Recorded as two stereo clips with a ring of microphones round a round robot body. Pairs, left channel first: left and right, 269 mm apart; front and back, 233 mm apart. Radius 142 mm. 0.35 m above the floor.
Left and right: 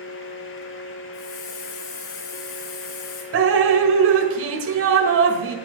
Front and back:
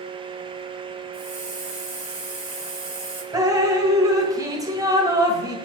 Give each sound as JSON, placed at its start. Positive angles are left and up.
{"t": 1.1, "sound": "a hiss", "azimuth_deg": 130, "distance_m": 4.5}
{"t": 3.3, "sound": "dripping", "azimuth_deg": -110, "distance_m": 1.6}